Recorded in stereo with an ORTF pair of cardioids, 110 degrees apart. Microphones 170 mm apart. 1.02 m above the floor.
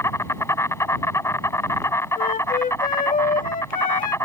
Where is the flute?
55° left.